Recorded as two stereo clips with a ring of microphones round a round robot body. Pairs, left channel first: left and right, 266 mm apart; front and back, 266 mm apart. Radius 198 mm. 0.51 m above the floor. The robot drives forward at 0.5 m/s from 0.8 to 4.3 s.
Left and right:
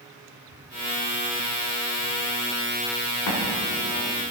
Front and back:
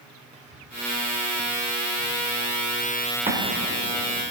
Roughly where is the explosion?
Behind left.